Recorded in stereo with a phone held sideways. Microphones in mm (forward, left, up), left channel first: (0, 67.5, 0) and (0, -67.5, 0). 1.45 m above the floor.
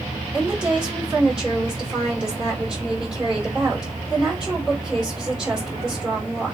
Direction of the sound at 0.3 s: 5° right (ahead or behind).